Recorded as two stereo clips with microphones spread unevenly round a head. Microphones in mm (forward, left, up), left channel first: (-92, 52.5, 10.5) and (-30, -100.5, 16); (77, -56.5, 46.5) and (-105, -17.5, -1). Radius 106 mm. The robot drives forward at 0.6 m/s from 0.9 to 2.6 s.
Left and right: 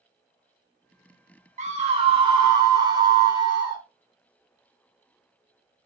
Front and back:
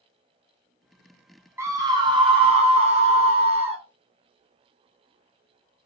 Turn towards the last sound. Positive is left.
turn(degrees=-135)